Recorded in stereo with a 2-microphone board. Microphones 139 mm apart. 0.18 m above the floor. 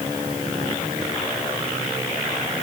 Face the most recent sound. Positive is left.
No sound to turn to.